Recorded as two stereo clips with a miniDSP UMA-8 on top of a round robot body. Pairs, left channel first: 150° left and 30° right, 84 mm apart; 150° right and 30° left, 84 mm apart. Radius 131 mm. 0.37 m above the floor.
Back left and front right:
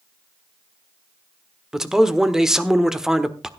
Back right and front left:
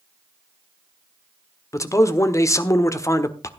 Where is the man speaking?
110° right, 1.5 m.